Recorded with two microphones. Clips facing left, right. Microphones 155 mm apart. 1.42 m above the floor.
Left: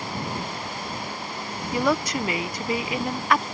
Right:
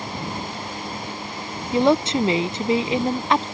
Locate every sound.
1.7 s a woman speaking: 25° right (ahead or behind)